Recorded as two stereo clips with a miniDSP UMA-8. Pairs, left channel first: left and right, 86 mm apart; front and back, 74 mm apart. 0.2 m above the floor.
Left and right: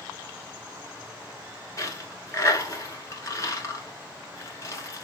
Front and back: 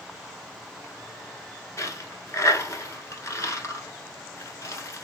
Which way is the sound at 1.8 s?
40° left.